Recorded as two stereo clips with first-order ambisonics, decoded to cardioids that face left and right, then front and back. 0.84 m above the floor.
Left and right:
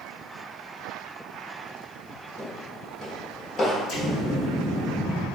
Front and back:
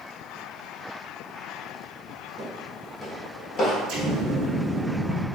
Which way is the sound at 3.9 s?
140° left.